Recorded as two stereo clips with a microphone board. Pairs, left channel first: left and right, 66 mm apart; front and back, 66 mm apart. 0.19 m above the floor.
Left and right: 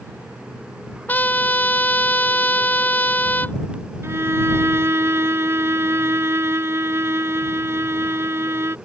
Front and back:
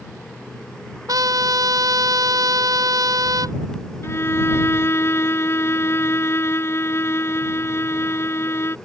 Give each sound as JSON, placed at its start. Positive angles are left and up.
{"t": 1.1, "sound": "a trumpet", "azimuth_deg": 155}
{"t": 4.0, "sound": "a violin", "azimuth_deg": -45}